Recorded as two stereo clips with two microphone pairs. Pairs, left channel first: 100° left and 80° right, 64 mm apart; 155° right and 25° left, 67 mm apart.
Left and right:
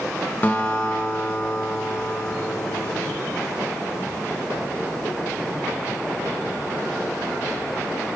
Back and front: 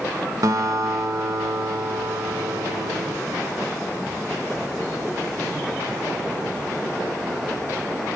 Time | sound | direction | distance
0.4 | a guitar | 40° left | 0.7 m